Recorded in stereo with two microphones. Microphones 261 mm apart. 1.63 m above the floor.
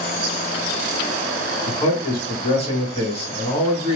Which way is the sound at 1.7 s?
20° left (ahead or behind).